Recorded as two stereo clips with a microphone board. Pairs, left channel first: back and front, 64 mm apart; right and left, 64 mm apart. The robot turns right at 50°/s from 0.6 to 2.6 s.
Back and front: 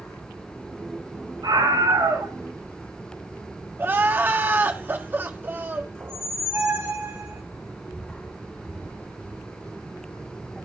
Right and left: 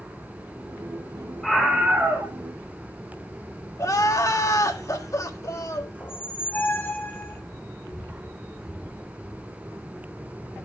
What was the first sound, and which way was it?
A scream, 5° right.